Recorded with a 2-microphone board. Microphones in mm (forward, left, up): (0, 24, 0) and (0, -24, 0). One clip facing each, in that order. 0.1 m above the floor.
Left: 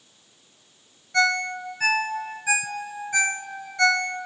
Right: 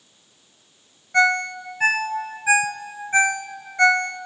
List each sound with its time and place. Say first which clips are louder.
1.1 s a ringtone: right 3 dB; 25° right (ahead or behind), 0.5 m